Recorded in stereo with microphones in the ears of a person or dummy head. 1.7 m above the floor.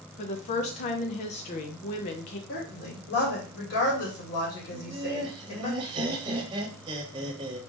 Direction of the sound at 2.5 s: 60° left (ahead or behind).